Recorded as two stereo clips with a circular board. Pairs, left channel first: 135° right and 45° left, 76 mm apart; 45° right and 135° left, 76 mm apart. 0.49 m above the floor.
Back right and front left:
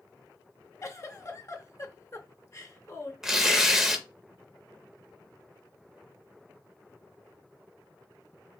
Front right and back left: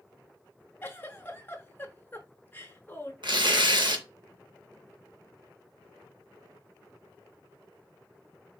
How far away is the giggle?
About 0.6 m.